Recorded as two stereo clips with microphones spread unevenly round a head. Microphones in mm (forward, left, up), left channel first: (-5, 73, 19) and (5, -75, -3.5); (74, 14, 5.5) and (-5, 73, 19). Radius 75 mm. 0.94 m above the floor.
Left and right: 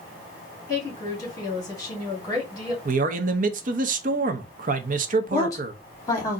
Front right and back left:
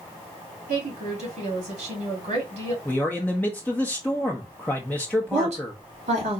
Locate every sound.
0.7 s a woman speaking: 165° left, 2 m
2.9 s a man speaking: 110° right, 0.6 m
5.3 s a woman speaking: 165° left, 2.5 m